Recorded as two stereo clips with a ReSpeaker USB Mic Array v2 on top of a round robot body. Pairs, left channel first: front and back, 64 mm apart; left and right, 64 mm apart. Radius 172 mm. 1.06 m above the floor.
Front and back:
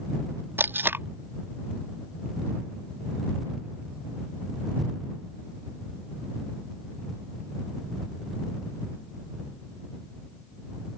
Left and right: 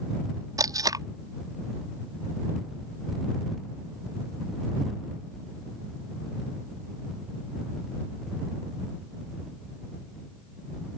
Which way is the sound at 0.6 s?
120° right.